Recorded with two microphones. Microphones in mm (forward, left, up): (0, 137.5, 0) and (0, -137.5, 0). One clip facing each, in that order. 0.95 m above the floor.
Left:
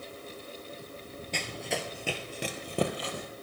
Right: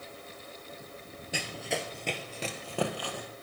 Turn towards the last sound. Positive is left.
turn(degrees=25)  # may be behind; listen again after turning